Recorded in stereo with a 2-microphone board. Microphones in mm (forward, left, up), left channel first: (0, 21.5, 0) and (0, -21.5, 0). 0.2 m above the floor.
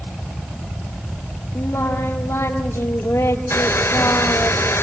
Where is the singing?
80° left, 2.5 m.